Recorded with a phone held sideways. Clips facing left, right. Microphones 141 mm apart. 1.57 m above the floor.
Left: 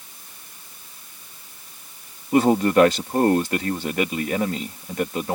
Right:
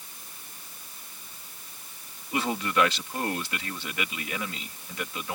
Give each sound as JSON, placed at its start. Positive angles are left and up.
{"t": 2.3, "sound": "a man speaking", "side_deg": 45}